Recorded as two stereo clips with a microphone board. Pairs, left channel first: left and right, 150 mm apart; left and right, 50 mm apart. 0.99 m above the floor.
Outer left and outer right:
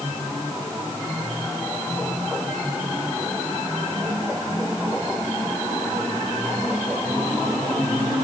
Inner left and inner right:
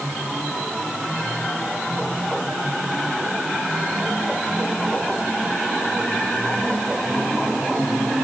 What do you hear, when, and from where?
Only background noise.